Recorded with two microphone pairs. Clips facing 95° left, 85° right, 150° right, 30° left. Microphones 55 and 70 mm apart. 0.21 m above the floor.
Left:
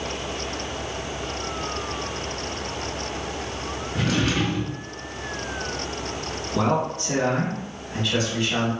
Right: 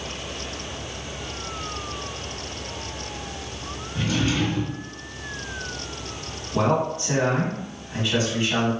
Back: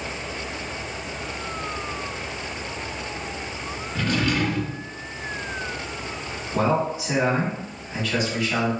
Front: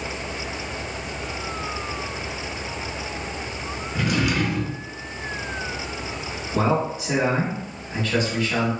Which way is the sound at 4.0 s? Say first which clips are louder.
Even, front 1 dB; 110° left.